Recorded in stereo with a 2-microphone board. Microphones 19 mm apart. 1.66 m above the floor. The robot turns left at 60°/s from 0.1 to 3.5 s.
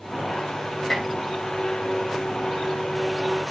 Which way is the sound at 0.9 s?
15° left (ahead or behind).